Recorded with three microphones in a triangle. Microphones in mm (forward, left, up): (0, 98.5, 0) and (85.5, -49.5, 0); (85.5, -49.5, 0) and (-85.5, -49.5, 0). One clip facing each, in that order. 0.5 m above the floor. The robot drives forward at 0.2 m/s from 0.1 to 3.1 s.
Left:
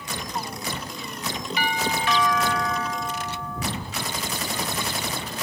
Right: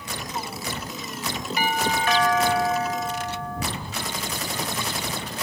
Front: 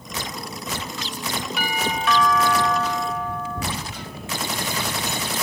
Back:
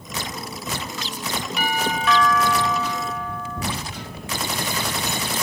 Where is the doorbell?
85° right, 3.5 m; by 3.6 s 95° right, 3.5 m.